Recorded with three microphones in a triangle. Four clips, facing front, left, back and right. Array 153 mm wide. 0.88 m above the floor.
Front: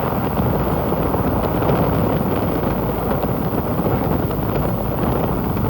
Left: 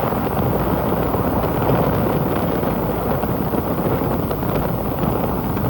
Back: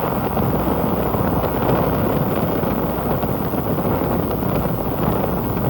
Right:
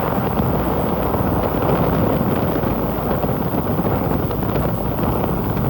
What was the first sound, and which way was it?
An insect, 160° right.